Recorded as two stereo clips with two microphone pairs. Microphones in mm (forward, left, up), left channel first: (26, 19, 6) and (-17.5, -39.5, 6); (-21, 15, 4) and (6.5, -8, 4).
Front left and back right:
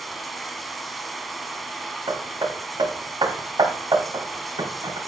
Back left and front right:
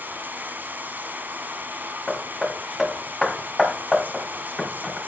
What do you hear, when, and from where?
0.0 s running water: 40° right, 1.5 m
2.1 s hammering: 125° right, 2.5 m